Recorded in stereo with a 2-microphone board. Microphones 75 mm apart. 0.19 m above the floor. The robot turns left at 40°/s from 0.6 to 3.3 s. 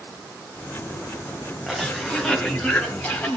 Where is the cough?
5° right (ahead or behind), 1.1 m; by 3.4 s 20° left (ahead or behind), 1.1 m.